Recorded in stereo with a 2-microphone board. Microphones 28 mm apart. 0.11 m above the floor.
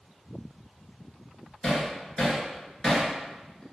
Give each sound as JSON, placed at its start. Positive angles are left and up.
{"t": 1.6, "sound": "hammering", "side_deg": 15, "distance_m": 0.9}